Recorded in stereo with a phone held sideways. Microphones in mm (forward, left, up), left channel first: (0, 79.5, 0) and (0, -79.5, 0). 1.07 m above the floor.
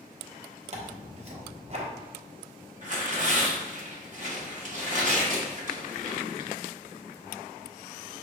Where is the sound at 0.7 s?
45° right (ahead or behind), 0.9 m.